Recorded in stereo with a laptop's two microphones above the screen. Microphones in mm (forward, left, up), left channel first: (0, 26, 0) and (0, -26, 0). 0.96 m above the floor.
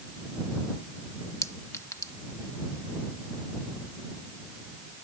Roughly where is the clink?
Left.